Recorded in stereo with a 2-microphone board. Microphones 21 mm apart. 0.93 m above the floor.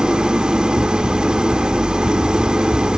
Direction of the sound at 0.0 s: 45° right (ahead or behind).